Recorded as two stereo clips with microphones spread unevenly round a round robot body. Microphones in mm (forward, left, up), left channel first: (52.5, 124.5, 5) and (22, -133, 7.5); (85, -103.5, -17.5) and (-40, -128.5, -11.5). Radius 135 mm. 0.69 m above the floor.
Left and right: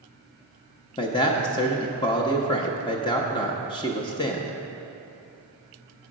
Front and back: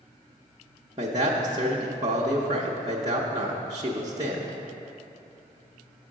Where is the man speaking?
145° left, 0.5 m.